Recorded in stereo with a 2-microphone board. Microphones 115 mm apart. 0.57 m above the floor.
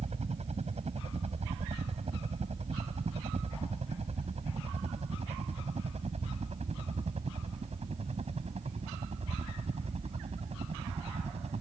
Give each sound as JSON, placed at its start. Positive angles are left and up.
{"t": 0.0, "sound": "a helicopter", "side_deg": -65}